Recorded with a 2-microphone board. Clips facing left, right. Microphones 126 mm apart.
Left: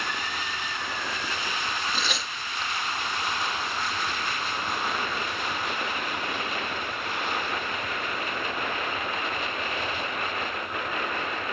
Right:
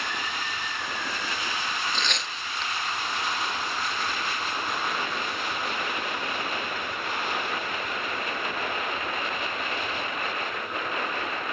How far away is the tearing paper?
About 0.9 m.